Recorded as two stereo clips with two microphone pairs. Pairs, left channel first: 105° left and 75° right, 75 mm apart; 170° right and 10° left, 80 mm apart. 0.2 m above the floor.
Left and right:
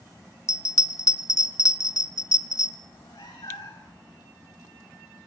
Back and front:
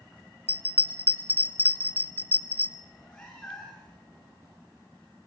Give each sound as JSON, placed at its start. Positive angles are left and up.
{"t": 0.5, "sound": "a bell", "azimuth_deg": 130, "distance_m": 1.3}
{"t": 2.8, "sound": "a cat meowing", "azimuth_deg": 115, "distance_m": 8.5}